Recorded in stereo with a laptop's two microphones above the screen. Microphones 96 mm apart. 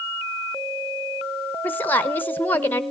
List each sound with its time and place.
1.6 s a woman speaking: 20° left (ahead or behind), 0.9 m